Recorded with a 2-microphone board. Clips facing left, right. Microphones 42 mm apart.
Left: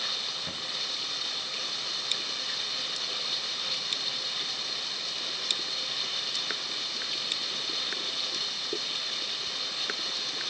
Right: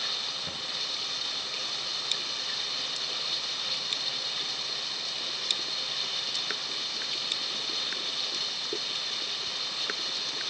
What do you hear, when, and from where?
0.0 s running water: centre (ahead or behind), 3.5 m